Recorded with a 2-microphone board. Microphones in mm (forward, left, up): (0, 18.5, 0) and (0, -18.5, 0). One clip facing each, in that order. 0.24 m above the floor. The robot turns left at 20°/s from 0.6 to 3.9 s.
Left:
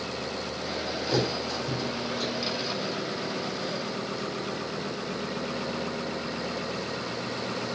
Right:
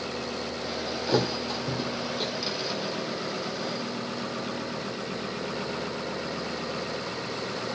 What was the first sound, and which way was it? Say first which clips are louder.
A thud: right 2 dB; 30° right (ahead or behind).